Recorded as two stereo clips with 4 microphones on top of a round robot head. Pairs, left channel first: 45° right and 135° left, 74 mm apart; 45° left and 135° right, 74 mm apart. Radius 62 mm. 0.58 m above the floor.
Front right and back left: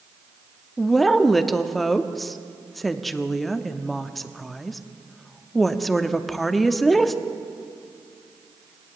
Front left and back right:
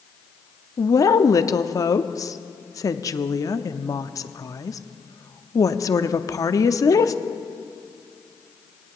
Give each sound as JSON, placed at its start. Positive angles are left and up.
{"t": 0.8, "sound": "a woman speaking", "azimuth_deg": 40, "distance_m": 0.8}